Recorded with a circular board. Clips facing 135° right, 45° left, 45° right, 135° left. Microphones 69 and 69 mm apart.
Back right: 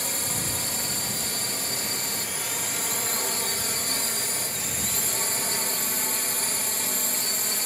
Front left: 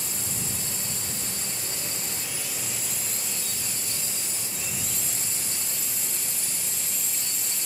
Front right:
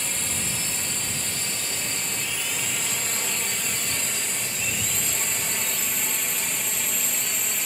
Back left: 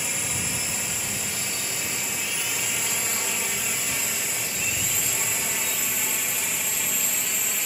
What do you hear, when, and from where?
0.0 s a drone: 145° right; by 7.7 s 140° right